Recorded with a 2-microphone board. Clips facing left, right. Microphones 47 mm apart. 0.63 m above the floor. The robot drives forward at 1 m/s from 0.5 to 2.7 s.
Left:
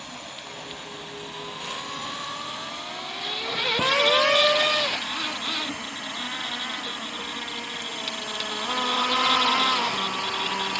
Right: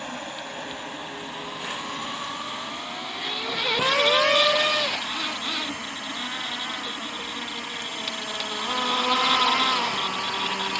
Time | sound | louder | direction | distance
0.0 | an insect | right 5 dB | 35° right (ahead or behind) | ?